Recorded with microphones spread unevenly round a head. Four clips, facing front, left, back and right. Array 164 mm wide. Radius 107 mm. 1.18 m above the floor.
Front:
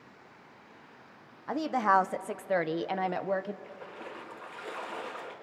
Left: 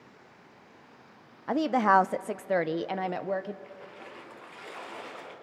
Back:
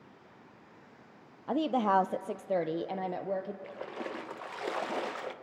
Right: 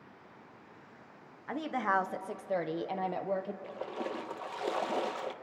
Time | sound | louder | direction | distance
1.5 | a woman speaking | left 9 dB, front 1 dB | 105° left | 0.6 m
3.6 | a splash | right 8 dB, back 4 dB | 115° right | 1.0 m